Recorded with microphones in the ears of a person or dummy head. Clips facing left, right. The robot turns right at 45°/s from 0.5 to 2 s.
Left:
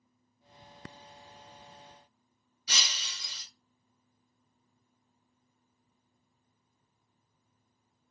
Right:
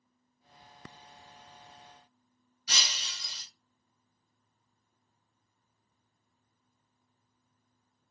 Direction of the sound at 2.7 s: 10° left (ahead or behind).